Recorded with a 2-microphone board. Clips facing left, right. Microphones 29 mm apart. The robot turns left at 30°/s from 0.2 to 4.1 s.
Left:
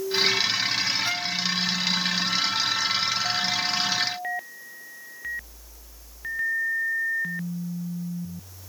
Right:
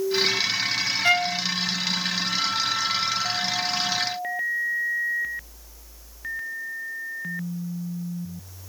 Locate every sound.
1.0 s a violin: 55° right (ahead or behind), 0.7 m; by 1.4 s 50° right (ahead or behind), 0.7 m